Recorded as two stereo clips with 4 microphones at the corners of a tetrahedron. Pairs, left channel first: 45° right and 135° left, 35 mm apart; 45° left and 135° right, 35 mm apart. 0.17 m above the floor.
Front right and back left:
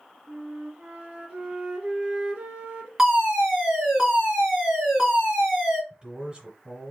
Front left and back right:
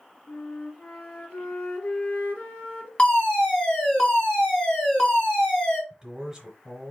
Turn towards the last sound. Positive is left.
turn(degrees=150)